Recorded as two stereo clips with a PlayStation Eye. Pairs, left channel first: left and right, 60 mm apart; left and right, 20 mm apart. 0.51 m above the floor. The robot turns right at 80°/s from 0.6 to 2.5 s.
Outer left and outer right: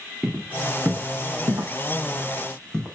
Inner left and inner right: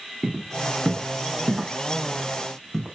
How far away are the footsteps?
About 3.5 m.